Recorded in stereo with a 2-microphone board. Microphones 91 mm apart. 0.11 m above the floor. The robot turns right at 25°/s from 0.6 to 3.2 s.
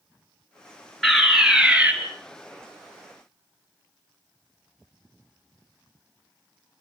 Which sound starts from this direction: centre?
A fire alarm, at 1.0 s.